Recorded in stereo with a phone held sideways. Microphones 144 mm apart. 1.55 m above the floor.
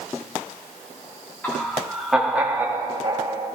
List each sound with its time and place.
1.4 s laughter: 10° left (ahead or behind), 3 m; by 3.5 s 35° right (ahead or behind), 2.5 m